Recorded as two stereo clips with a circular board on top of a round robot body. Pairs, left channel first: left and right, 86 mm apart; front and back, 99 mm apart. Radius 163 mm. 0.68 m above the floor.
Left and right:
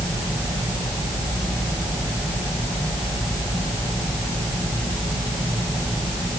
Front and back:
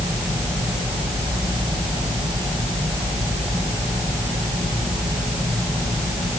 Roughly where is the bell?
I don't hear a bell.